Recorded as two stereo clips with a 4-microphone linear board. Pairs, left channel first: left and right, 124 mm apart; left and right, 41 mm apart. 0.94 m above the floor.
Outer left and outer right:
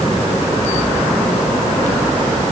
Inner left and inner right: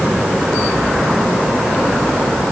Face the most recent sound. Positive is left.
No sound to turn to.